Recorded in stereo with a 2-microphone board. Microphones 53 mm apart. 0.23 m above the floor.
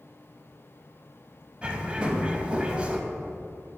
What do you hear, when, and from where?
1.6 s a bird: 20° right (ahead or behind), 0.6 m